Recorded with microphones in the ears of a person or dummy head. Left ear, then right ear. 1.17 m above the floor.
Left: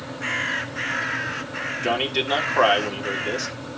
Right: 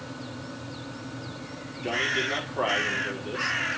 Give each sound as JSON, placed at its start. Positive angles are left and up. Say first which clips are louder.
{"t": 1.8, "sound": "a man speaking", "louder": "left 2 dB", "side_deg": 45, "distance_m": 2.5}